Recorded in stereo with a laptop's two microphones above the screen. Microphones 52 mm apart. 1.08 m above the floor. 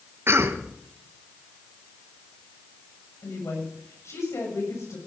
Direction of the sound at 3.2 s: 80° left.